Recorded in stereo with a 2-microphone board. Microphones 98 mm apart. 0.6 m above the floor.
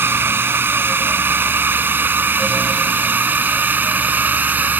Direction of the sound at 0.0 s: 25° right (ahead or behind).